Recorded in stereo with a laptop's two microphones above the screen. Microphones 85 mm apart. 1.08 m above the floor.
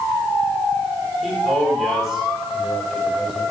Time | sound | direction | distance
1.2 | a man speaking | 5° right (ahead or behind) | 5 m